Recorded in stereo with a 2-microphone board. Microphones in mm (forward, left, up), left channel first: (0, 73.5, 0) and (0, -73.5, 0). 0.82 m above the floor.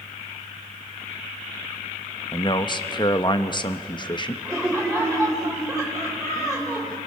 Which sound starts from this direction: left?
A man speaking, at 2.3 s.